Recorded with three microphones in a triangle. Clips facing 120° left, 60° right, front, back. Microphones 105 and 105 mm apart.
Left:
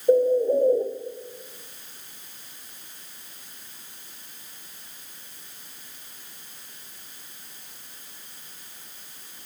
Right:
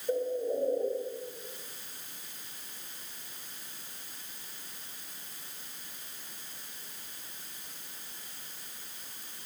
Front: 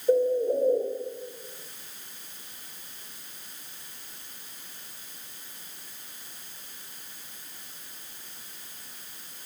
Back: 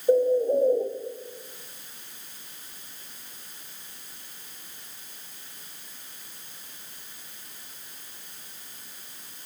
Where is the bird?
95° left, 1.6 m.